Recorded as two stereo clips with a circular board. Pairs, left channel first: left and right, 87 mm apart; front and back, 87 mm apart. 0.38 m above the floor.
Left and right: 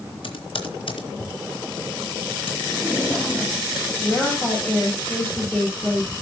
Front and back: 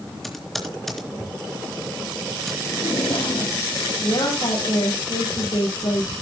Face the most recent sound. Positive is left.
turn(degrees=15)